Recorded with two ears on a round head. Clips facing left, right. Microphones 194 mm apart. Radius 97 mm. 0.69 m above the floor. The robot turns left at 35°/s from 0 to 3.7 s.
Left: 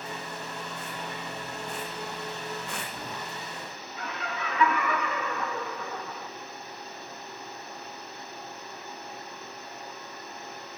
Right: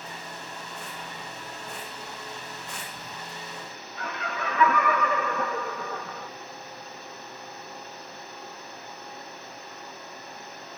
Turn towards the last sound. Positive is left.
turn(degrees=-40)  # may be behind; listen again after turning